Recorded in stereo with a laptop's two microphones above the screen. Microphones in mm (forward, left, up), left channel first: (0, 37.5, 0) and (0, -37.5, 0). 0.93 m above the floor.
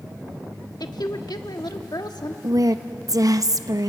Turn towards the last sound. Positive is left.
turn(degrees=-55)  # may be behind; listen again after turning